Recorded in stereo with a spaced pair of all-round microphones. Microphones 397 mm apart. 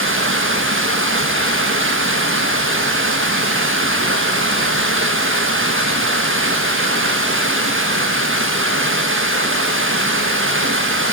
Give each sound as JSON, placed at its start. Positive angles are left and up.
{"t": 0.0, "sound": "running water", "side_deg": -30, "distance_m": 1.4}